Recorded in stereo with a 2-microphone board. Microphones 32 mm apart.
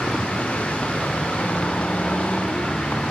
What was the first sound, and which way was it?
A vehicle, 40° left (ahead or behind).